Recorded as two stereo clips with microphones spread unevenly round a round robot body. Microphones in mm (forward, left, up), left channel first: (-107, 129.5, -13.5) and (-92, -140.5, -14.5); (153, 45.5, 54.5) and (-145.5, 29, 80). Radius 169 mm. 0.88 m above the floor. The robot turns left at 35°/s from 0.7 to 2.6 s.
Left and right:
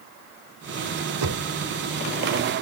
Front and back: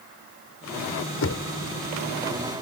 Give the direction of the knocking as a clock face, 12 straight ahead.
1 o'clock.